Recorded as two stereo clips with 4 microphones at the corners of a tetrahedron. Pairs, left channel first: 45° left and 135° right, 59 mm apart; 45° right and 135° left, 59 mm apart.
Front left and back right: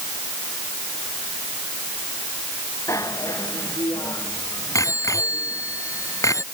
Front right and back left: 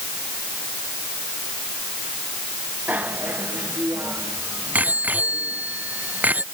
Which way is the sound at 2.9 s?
75° left.